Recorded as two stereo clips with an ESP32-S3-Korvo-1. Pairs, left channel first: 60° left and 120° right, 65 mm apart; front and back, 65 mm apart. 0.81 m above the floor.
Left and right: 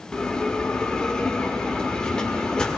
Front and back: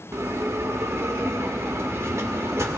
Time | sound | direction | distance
0.1 | a bell | 140° left | 0.9 m